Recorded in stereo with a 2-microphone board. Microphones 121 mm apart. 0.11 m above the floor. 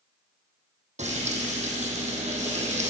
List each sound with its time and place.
1.0 s frying: 70° right (ahead or behind), 1.7 m